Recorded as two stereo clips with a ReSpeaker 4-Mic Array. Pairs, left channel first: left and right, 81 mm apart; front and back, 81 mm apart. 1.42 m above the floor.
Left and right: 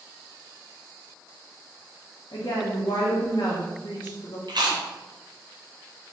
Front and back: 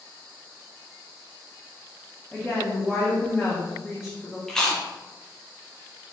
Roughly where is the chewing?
Right.